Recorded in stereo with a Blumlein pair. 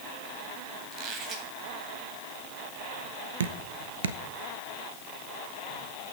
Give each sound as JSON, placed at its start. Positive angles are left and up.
{"t": 0.9, "sound": "a squeak", "azimuth_deg": -30, "distance_m": 2.5}
{"t": 3.4, "sound": "dripping", "azimuth_deg": -65, "distance_m": 0.9}